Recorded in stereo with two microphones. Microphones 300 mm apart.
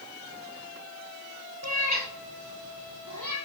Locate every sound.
1.6 s a cat meowing: 60° right (ahead or behind), 2.5 m; by 3.4 s 85° right, 4 m